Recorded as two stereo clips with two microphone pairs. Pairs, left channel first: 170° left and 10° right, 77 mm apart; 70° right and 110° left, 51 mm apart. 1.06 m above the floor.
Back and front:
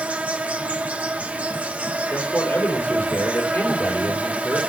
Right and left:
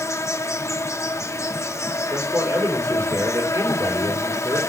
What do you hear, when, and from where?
0.0 s an insect: 80° right, 0.9 m
2.1 s a man speaking: 110° left, 3.5 m